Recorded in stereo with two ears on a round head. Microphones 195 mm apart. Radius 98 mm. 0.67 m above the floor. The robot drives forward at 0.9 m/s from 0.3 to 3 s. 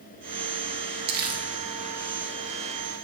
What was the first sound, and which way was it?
Crumpling, 50° right (ahead or behind).